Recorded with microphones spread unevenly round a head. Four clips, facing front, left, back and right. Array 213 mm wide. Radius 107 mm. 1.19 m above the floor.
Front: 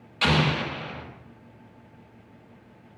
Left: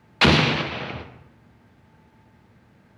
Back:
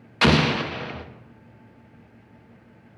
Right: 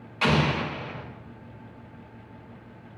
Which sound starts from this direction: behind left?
An explosion, at 0.2 s.